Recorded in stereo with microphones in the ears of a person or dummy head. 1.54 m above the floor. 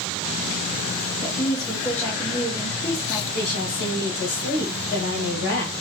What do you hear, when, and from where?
1.2 s a woman speaking: 10° left (ahead or behind), 1.6 m
3.3 s a woman speaking: 45° left (ahead or behind), 1.6 m